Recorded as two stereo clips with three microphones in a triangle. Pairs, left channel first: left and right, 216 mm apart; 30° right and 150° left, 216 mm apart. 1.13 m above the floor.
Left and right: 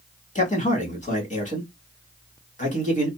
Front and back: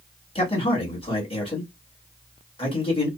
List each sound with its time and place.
0.3 s a man speaking: 35° left, 1.5 m